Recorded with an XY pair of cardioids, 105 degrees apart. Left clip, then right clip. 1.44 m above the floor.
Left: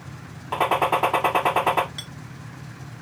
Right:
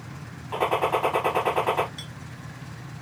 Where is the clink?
40° left, 1.2 m.